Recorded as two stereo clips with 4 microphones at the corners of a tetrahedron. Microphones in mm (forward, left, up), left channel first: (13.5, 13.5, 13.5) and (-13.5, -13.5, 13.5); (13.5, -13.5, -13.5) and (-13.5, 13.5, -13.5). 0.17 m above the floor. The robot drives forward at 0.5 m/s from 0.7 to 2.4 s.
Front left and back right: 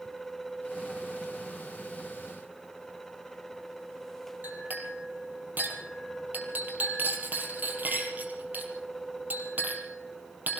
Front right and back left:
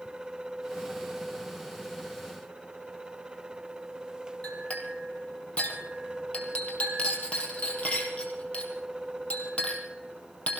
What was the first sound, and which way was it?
A clink, 95° right.